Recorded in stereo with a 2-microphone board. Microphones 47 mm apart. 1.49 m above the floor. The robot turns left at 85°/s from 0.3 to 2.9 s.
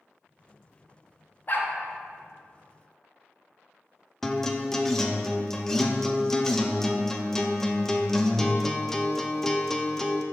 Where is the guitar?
10° left (ahead or behind), 0.5 m.